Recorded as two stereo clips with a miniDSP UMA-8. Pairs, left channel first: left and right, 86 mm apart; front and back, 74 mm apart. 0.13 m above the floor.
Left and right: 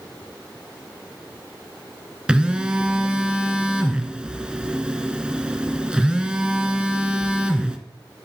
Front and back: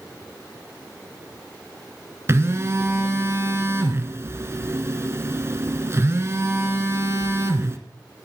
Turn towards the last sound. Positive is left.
turn(degrees=-165)